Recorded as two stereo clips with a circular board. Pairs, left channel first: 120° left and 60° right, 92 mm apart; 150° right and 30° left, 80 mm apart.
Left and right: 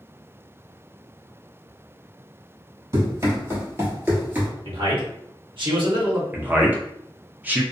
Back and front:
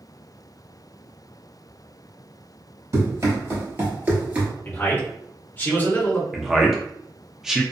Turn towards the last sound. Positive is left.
turn(degrees=-45)